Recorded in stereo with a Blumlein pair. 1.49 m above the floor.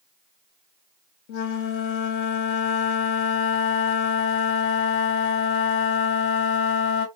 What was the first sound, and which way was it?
A flute, 45° left.